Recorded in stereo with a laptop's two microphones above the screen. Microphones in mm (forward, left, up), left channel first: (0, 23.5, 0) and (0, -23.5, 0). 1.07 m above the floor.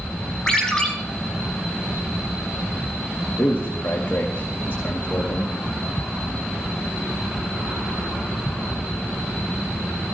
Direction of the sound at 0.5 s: 15° left (ahead or behind).